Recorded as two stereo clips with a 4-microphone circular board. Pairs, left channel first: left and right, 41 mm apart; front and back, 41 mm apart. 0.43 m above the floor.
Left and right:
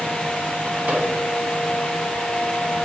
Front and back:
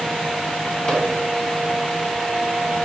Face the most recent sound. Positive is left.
turn(degrees=-65)